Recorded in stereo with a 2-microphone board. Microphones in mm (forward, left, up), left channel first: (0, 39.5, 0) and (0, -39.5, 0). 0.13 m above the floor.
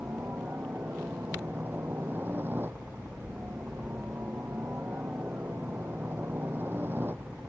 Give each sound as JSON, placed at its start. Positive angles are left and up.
{"t": 0.0, "sound": "a helicopter", "side_deg": -30}